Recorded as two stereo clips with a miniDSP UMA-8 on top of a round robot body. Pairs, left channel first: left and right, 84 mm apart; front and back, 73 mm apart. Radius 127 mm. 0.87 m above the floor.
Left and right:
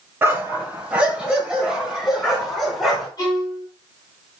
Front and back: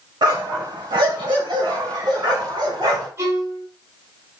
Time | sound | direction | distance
0.2 | a dog barking | 155° right | 2.5 m
3.2 | a violin | 130° left | 7 m